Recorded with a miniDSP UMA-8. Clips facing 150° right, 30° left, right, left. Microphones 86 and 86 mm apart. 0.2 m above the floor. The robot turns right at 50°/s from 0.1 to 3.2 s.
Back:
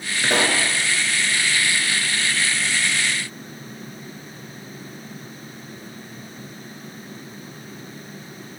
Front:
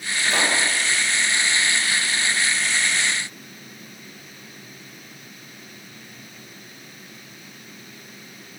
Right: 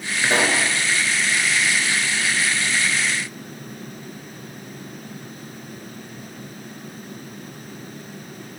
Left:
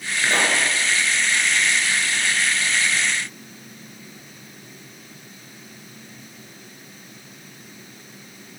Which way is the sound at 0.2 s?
165° right.